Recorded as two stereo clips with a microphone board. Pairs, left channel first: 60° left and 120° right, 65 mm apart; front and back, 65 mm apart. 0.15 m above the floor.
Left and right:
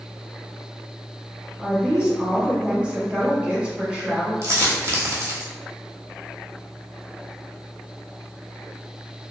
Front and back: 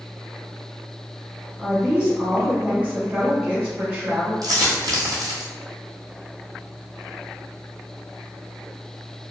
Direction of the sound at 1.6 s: 150° right.